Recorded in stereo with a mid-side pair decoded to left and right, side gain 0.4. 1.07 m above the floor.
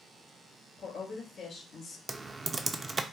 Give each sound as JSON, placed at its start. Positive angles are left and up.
{"t": 0.8, "sound": "a woman speaking", "azimuth_deg": 65, "distance_m": 2.0}
{"t": 2.1, "sound": "typing on a keyboard", "azimuth_deg": -30, "distance_m": 0.5}